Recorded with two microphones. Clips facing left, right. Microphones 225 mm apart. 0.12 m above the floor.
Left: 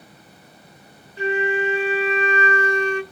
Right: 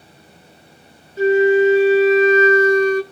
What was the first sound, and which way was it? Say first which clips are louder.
A flute: right 10 dB; 40° right (ahead or behind).